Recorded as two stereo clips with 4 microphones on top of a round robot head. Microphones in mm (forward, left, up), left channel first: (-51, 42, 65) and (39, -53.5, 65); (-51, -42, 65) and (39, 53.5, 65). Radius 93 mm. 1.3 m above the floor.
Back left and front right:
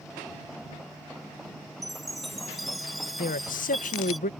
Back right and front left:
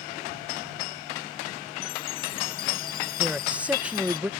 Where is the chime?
140° right.